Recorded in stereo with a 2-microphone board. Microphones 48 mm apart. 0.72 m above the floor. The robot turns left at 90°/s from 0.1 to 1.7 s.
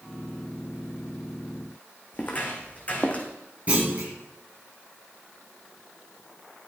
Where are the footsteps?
35° left (ahead or behind), 2.5 m; by 3.3 s 30° left (ahead or behind), 2 m.